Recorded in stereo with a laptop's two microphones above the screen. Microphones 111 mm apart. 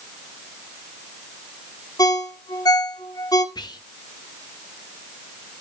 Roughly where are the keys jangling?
No keys jangling in this recording.